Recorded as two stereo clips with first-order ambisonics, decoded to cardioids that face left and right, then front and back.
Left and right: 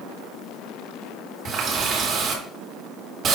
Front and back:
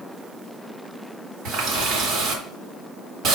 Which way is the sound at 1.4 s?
140° right.